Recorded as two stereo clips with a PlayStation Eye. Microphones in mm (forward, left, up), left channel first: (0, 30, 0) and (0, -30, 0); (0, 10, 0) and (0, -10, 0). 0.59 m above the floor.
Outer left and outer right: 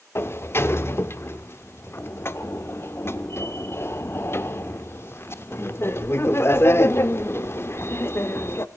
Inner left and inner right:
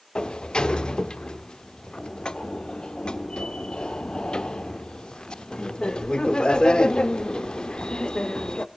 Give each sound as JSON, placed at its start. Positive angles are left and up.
{"t": 0.1, "sound": "a sliding door", "side_deg": 40, "distance_m": 0.7}